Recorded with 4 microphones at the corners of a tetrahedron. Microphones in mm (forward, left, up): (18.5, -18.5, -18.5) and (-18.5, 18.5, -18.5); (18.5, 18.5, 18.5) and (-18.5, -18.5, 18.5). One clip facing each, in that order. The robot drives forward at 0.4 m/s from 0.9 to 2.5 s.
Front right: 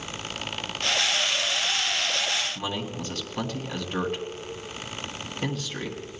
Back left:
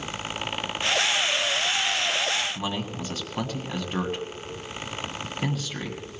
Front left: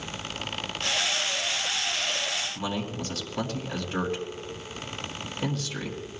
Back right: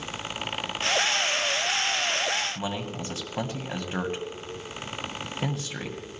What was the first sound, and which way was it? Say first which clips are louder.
A man speaking: back left 1 dB, front left 1 dB; 155° right.